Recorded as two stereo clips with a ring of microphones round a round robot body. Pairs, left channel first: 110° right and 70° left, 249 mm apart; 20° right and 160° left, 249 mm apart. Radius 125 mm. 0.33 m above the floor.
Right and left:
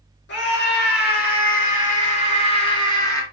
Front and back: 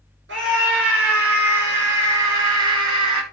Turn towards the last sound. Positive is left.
turn(degrees=170)